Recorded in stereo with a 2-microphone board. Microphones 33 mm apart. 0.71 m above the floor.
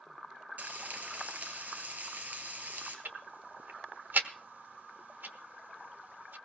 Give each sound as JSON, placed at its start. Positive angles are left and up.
{"t": 0.6, "sound": "frying", "side_deg": -60, "distance_m": 3.5}
{"t": 3.0, "sound": "ticking", "side_deg": -75, "distance_m": 1.1}